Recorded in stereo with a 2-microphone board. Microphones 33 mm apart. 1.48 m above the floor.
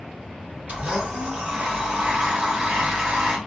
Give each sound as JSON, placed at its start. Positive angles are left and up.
{"t": 0.7, "sound": "a blender", "side_deg": -45, "distance_m": 0.9}